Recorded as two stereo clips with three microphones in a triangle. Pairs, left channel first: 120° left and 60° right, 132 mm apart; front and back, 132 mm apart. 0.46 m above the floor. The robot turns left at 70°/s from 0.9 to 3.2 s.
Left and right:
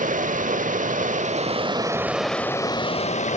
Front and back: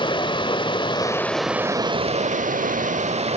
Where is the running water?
55° right, 0.8 m; by 3.4 s 145° left, 0.8 m.